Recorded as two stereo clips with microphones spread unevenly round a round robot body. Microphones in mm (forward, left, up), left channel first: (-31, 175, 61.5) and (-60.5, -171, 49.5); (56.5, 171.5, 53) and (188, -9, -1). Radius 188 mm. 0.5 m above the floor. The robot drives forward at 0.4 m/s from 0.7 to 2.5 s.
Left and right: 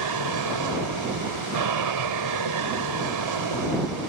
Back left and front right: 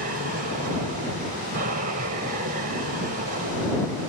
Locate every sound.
0.0 s an aircraft: 95° right